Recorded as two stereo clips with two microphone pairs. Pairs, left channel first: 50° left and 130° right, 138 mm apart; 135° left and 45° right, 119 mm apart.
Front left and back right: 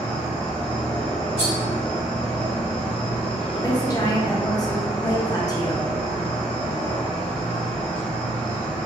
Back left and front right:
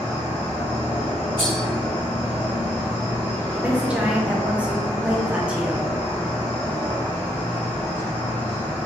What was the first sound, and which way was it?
An insect, 105° left.